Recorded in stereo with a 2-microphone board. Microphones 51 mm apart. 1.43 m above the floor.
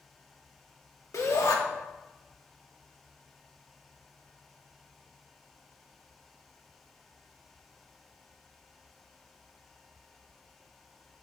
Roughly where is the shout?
Left.